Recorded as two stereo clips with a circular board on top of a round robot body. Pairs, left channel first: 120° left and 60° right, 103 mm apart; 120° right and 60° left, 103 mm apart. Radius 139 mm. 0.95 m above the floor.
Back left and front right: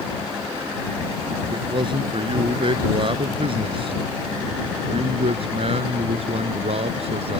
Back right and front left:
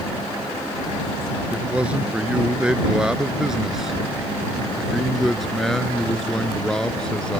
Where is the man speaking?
20° right; by 7.4 s 40° right.